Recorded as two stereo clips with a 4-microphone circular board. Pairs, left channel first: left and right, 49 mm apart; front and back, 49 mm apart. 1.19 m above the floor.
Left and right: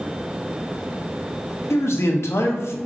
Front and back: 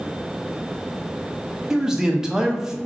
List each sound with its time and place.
1.7 s a man speaking: 105° left, 0.6 m